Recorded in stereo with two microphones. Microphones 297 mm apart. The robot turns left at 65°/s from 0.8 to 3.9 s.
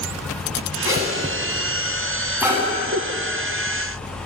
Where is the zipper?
85° left, 9 m; by 2.6 s 20° right (ahead or behind), 9 m.